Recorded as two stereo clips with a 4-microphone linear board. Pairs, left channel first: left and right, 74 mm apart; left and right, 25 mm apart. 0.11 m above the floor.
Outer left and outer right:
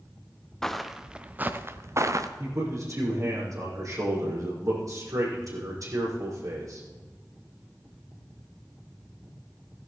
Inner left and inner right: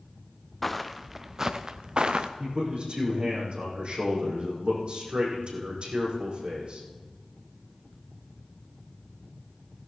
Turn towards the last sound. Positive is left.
turn(degrees=-50)  # may be behind; listen again after turning